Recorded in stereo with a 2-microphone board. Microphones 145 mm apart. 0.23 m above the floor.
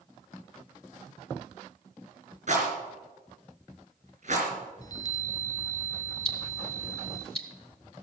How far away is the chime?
About 1.0 m.